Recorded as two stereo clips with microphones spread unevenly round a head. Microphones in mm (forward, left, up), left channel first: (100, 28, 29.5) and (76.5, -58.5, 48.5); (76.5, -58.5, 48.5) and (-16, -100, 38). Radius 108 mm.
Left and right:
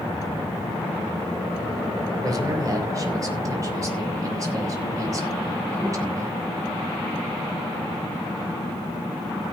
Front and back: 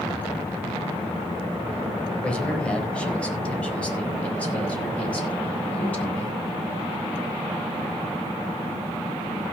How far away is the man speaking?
About 4 m.